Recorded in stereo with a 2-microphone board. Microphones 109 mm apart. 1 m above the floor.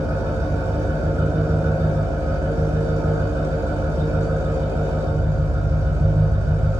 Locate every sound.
0.0 s an engine running: 25° right (ahead or behind), 2.0 m